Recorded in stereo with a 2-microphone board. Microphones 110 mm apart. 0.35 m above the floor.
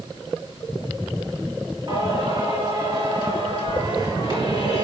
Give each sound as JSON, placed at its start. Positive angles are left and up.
{"t": 1.9, "sound": "singing", "side_deg": -45, "distance_m": 2.5}